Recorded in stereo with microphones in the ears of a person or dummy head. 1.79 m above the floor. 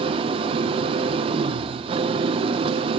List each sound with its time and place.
0.0 s an engine running: 30° right (ahead or behind), 1.3 m